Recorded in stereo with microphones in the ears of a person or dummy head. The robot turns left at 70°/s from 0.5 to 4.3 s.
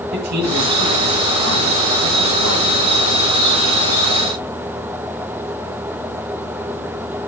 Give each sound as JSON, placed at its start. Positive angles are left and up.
{"t": 0.1, "sound": "a man speaking", "azimuth_deg": -135, "distance_m": 8.5}